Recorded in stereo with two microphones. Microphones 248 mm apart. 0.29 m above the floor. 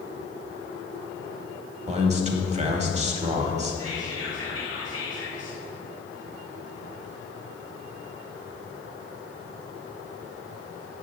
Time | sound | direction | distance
1.9 | a man speaking | 25° right (ahead or behind) | 1.1 m
3.8 | whispering | 60° left (ahead or behind) | 3 m